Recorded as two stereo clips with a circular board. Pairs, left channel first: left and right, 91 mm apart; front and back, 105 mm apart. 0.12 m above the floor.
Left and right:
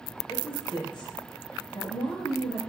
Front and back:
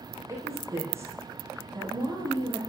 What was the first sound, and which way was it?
A woman speaking, 120° left.